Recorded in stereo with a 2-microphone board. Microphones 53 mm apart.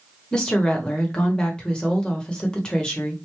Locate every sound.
0.3 s a woman speaking: 15° left (ahead or behind), 1.0 m